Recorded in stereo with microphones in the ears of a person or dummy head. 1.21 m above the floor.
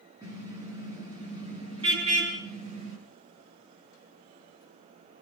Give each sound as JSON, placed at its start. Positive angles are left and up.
{"t": 0.2, "sound": "a car horn", "side_deg": -20, "distance_m": 7.5}